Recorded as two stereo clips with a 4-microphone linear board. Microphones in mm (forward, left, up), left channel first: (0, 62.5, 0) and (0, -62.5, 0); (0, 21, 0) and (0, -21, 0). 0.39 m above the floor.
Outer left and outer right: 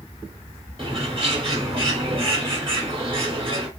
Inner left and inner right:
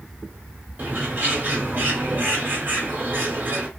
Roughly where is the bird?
Right.